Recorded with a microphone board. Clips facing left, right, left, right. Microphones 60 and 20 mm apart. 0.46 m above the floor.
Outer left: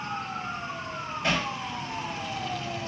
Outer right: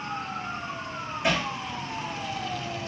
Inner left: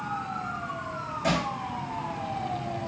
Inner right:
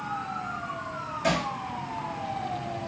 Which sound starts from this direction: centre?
Hammering, at 1.2 s.